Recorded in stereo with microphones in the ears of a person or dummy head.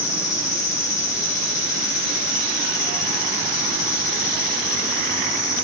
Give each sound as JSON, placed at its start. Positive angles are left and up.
{"t": 0.0, "sound": "an insect", "side_deg": 20, "distance_m": 3.0}